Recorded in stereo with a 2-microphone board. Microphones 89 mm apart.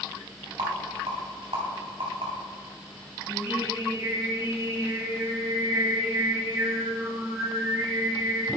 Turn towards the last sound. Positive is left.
turn(degrees=-30)  # may be behind; listen again after turning